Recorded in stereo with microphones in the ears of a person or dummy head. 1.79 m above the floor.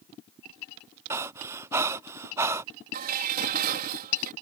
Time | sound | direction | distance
1.1 | breathing | 15° right (ahead or behind) | ?
2.9 | dishes clattering | 45° right (ahead or behind) | ?